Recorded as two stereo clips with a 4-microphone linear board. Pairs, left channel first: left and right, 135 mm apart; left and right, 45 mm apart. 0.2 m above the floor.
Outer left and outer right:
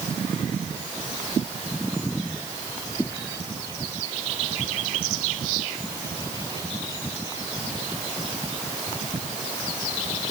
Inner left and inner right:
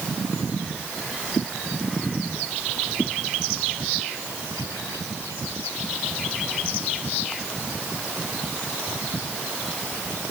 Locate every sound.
Only background noise.